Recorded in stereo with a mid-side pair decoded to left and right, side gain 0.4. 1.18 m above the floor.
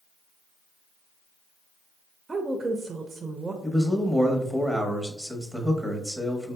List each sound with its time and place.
2.3 s a woman speaking: 30° right, 0.6 m
3.6 s a man speaking: 5° left, 1.1 m